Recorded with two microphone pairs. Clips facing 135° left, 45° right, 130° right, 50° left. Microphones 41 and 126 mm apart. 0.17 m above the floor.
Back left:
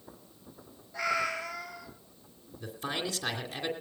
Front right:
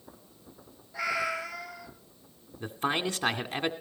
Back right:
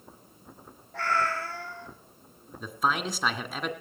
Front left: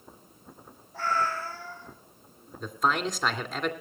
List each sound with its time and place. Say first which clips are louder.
0.9 s a cat meowing: even, even; 125° right, 2 m
2.6 s a man speaking: front right 5 dB, front left 1 dB; 40° right, 2 m